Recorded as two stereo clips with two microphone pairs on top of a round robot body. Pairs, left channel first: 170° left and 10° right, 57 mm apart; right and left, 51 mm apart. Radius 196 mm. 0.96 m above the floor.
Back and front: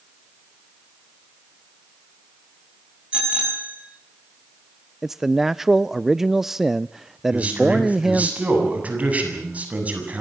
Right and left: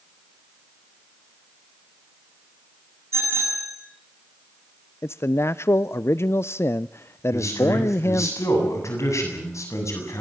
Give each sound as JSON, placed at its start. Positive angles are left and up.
{"t": 3.1, "sound": "a bicycle bell", "azimuth_deg": 60, "distance_m": 6.5}
{"t": 5.0, "sound": "a man speaking", "azimuth_deg": -95, "distance_m": 0.6}
{"t": 7.3, "sound": "a man speaking", "azimuth_deg": -75, "distance_m": 7.0}